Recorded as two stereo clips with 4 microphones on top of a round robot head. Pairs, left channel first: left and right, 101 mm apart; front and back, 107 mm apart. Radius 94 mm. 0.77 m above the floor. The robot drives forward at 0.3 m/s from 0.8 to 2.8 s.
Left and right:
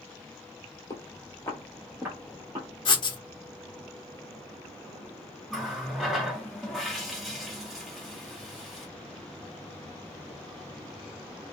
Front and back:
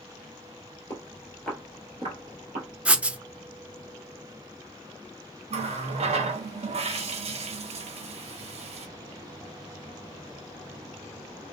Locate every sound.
0.9 s footsteps: 50° left, 1.1 m; by 2.7 s 150° right, 1.3 m
2.9 s writing: 105° left, 0.6 m
5.5 s a running tap: 175° right, 0.6 m